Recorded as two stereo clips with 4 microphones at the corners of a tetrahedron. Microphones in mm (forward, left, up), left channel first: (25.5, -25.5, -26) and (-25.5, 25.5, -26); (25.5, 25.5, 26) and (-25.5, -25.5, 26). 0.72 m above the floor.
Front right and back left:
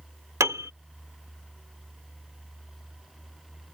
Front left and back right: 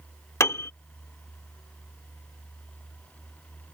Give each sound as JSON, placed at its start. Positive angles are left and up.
{"t": 0.4, "sound": "a piano", "azimuth_deg": 95}